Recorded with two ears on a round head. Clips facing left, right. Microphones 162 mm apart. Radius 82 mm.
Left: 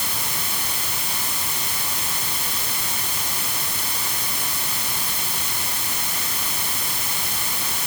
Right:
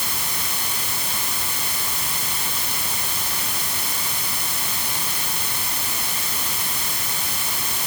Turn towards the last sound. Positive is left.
No sound to turn to.